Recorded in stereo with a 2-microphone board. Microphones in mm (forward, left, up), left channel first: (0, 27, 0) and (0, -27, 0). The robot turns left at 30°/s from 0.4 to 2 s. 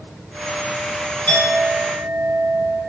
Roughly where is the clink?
Left.